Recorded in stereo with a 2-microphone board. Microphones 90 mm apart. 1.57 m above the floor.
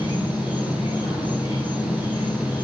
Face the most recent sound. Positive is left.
turn(degrees=70)  # may be behind; listen again after turning